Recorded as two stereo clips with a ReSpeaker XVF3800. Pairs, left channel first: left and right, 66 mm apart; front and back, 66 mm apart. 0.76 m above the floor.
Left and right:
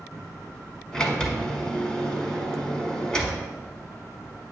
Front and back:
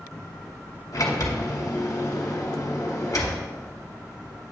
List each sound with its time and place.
0.9 s a sliding door: 15° left, 1.3 m